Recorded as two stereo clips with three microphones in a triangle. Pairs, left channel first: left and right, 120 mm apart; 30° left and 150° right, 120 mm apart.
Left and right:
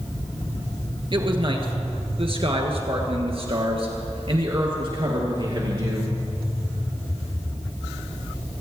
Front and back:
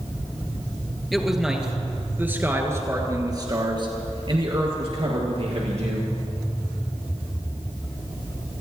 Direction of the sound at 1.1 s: 60° right.